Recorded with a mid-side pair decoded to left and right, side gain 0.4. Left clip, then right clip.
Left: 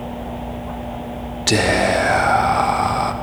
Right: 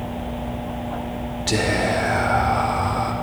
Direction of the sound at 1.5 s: 60° left.